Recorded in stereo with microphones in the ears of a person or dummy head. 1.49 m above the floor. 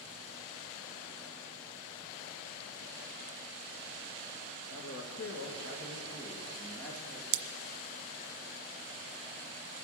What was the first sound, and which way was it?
A man speaking, 80° left.